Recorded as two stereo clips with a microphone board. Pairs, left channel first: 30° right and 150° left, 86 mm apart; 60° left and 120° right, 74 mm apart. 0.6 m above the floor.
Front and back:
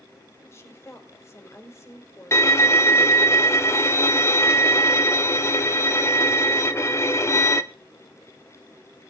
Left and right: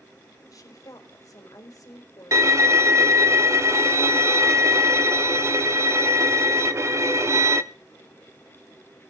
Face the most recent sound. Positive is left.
turn(degrees=-80)